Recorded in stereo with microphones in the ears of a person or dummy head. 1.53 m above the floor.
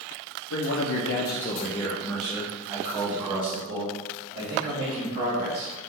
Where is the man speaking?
90° left, 0.8 m; by 5.7 s 35° right (ahead or behind), 3 m.